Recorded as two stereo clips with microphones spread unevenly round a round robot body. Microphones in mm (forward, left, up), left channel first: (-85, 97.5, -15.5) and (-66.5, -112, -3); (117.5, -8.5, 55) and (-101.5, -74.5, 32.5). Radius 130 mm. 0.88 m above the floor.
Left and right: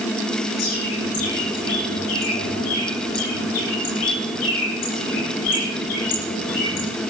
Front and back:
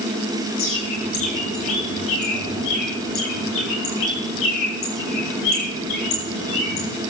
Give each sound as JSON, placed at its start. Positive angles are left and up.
{"t": 0.6, "sound": "a bird", "azimuth_deg": 55, "distance_m": 7.0}